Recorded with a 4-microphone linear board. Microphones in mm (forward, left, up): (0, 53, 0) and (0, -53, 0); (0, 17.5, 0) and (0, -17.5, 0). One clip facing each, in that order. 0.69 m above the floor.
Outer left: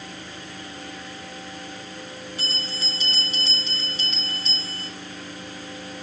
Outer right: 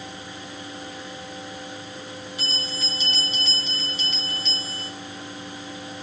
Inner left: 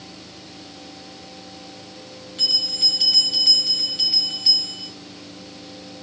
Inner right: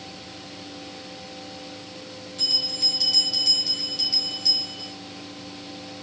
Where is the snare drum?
I don't hear a snare drum.